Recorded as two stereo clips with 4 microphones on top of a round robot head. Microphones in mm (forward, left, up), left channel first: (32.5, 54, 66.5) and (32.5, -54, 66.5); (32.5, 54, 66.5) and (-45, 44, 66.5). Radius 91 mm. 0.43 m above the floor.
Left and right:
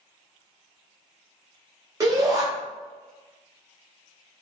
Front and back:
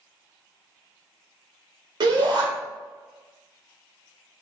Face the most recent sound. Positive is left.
turn(degrees=-150)